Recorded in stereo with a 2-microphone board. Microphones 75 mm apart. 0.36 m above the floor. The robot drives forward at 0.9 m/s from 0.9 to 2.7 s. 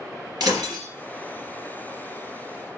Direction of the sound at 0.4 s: 70° right (ahead or behind).